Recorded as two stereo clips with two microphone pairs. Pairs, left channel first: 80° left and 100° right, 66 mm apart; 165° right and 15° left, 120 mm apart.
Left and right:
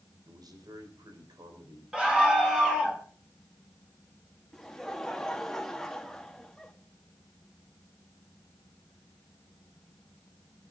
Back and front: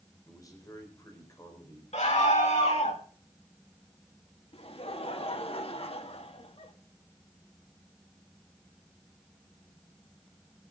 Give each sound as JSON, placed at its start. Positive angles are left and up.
{"t": 0.3, "sound": "a man speaking", "azimuth_deg": -100, "distance_m": 5.0}
{"t": 1.9, "sound": "a scream", "azimuth_deg": -175, "distance_m": 6.5}
{"t": 4.5, "sound": "laughter", "azimuth_deg": 160, "distance_m": 2.5}